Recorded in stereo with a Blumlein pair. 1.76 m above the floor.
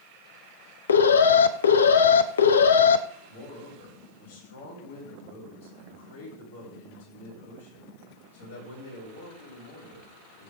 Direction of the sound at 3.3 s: 70° left.